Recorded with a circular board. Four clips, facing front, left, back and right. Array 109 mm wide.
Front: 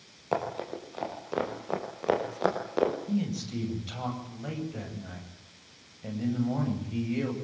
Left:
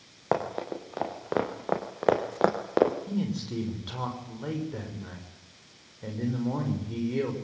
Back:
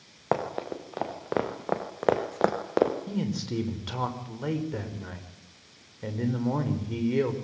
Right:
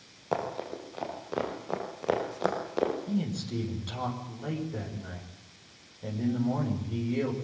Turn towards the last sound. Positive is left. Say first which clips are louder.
# left 1 dB, even
turn(degrees=170)